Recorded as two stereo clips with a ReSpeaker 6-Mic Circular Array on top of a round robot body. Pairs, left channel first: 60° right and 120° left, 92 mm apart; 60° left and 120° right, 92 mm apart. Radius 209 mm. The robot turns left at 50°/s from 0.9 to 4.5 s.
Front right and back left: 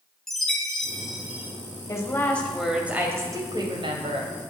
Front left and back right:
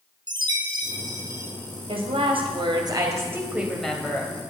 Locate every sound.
0.3 s a chime: 145° right, 2.5 m; by 1.5 s 175° right, 2.5 m
1.9 s a woman speaking: 115° right, 2.5 m; by 4.3 s 125° left, 2.5 m